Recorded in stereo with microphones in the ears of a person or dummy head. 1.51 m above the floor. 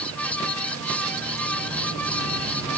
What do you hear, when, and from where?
0.0 s a fan: 15° left (ahead or behind)